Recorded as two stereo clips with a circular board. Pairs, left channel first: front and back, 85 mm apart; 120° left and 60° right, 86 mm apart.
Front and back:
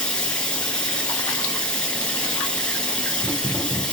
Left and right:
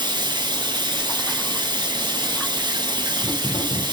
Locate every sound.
0.0 s running water: 80° right, 1.3 m